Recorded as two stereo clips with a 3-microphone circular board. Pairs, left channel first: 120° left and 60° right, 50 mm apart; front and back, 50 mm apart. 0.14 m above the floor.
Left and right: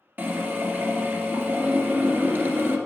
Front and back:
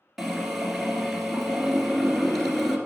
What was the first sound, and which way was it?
A drill, 90° right.